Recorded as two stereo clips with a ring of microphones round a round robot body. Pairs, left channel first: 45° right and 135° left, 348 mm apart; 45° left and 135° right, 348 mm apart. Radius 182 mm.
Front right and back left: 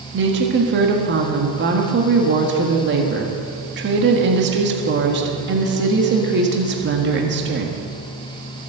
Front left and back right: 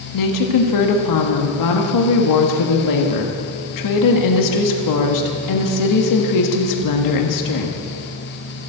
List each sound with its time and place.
0.1 s a woman speaking: 75° left, 1.6 m